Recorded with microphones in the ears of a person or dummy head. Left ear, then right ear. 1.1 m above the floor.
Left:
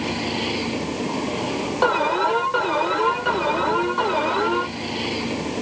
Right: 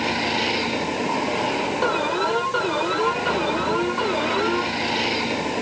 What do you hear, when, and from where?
0.0 s a vehicle: 40° right (ahead or behind)
1.8 s an alarm: 25° left (ahead or behind)